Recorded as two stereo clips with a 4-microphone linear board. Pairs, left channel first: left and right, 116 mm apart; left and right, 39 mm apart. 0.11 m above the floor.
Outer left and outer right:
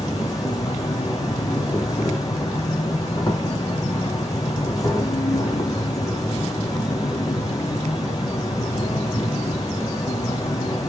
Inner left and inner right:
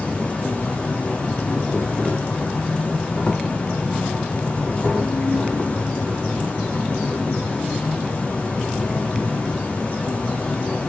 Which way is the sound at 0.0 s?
30° left (ahead or behind).